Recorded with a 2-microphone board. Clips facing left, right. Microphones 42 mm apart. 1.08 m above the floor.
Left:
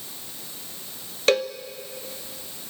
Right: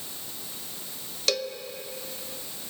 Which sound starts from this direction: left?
A cowbell, at 1.3 s.